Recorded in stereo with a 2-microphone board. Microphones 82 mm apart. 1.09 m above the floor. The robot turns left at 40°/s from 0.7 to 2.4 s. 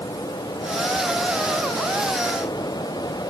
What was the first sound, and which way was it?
Only background noise.